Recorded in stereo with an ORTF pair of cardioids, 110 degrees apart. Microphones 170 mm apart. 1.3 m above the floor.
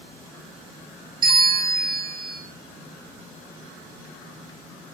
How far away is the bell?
About 0.6 m.